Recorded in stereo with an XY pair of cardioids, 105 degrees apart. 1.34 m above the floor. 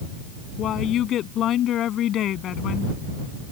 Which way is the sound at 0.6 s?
65° left.